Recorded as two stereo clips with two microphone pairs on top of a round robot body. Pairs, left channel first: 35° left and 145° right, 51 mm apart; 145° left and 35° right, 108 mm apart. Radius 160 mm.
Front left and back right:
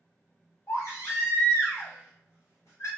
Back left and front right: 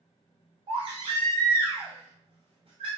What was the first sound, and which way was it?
A baby crying, straight ahead.